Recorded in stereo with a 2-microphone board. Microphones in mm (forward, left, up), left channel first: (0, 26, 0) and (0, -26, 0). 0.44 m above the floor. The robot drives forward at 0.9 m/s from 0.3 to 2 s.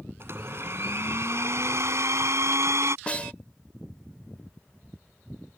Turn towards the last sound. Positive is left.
turn(degrees=25)  # may be behind; listen again after turning